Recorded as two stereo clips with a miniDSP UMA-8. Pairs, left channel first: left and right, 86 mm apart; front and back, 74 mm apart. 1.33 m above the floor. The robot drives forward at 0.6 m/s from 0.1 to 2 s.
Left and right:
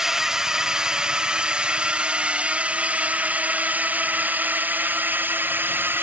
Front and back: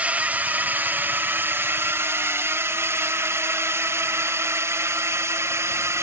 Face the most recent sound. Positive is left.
turn(degrees=-145)